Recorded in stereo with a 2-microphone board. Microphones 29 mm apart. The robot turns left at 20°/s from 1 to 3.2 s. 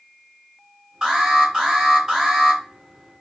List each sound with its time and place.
1.0 s an alarm: 20° right (ahead or behind), 2 m